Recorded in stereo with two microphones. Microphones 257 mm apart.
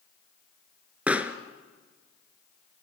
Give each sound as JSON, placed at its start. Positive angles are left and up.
{"t": 1.1, "sound": "a pop", "side_deg": -5, "distance_m": 1.1}